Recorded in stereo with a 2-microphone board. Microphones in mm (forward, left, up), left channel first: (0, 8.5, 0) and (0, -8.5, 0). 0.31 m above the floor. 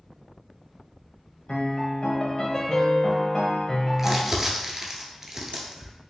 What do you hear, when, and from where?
1.5 s a piano: 45° left (ahead or behind), 0.7 m
4.0 s crumpling: 15° right (ahead or behind), 0.7 m